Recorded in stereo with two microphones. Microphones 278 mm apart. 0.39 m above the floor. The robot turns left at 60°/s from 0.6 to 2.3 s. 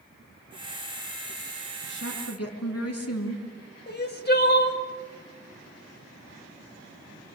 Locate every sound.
1.8 s a woman speaking: 35° left (ahead or behind), 5 m; by 3.5 s 60° left (ahead or behind), 5 m
3.9 s crying: 35° left (ahead or behind), 1.8 m